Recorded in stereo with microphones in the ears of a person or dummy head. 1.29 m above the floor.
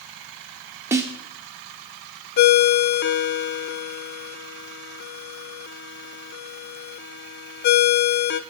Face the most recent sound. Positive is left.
turn(degrees=55)  # may be behind; listen again after turning